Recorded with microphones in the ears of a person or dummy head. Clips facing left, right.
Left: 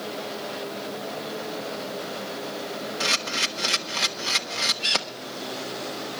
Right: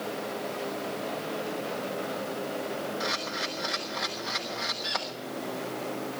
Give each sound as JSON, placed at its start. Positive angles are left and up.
{"t": 3.0, "sound": "a camera shutter", "side_deg": 40, "distance_m": 1.0}